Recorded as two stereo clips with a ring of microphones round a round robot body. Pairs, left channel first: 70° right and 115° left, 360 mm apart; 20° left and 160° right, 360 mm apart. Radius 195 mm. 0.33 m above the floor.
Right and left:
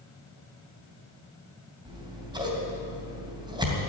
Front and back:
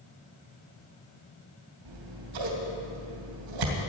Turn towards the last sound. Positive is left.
turn(degrees=-170)